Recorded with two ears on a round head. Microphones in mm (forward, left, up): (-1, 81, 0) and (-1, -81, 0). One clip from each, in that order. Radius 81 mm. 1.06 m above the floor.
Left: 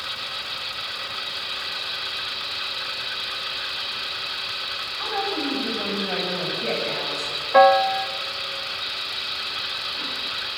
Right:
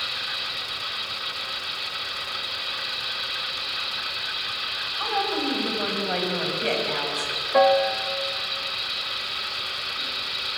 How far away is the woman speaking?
About 5 m.